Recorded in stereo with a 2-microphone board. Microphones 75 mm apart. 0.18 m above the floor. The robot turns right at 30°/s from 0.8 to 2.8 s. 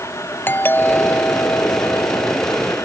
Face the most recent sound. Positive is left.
turn(degrees=90)